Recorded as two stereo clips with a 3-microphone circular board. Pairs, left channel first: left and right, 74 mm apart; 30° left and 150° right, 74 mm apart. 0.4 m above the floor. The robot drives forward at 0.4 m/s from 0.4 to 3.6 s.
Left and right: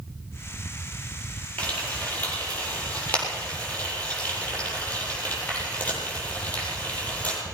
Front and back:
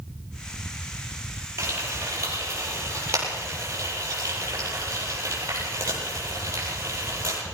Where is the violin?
No violin in this recording.